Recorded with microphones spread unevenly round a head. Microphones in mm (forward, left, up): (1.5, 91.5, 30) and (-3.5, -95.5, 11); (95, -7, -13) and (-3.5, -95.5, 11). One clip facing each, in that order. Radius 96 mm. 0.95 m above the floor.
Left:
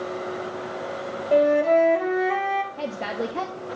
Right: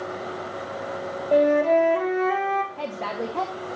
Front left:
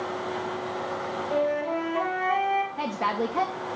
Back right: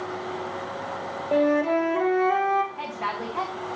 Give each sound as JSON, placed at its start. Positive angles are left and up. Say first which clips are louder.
{"t": 1.3, "sound": "a flute", "louder": "even, back right 6 dB", "azimuth_deg": 180, "distance_m": 2.5}
{"t": 2.8, "sound": "a woman speaking", "louder": "left 1 dB, front left 4 dB", "azimuth_deg": 5, "distance_m": 1.4}